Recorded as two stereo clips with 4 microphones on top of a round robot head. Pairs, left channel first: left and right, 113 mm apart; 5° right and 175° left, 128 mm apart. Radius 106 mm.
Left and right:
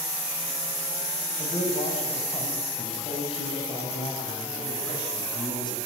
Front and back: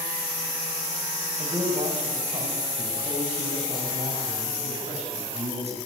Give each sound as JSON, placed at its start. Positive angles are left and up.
{"t": 1.4, "sound": "a man speaking", "azimuth_deg": 125, "distance_m": 8.0}